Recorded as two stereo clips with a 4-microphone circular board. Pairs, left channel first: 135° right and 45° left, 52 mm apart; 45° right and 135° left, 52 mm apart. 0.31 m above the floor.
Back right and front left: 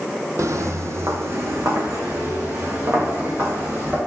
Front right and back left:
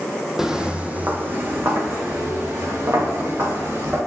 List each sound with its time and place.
0.4 s footsteps: 50° left, 0.7 m; by 4.0 s 100° left, 3 m